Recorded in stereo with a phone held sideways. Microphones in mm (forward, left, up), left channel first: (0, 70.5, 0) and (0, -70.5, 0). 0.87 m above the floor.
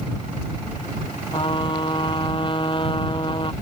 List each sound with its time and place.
1.3 s a trumpet: 35° left (ahead or behind)